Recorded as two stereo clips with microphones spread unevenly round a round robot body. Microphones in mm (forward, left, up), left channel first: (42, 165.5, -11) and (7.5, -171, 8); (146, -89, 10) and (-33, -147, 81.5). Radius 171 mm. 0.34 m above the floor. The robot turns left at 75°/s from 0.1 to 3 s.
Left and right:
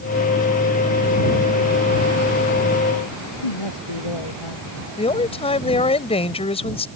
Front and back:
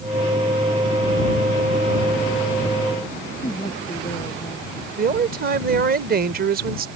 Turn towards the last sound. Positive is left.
turn(degrees=145)